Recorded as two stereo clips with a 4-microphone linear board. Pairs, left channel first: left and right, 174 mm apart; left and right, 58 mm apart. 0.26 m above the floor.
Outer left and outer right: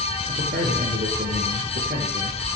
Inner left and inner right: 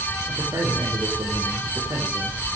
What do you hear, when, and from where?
0.3 s a man speaking: 75° right (ahead or behind), 6 m